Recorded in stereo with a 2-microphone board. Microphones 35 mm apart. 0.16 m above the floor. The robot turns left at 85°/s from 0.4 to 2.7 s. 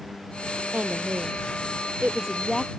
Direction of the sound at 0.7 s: 35° right.